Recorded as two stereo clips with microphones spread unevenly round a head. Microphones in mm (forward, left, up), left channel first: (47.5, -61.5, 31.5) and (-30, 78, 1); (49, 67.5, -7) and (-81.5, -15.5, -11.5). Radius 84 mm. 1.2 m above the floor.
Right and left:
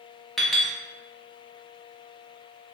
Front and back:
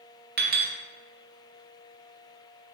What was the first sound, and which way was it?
A clink, 140° right.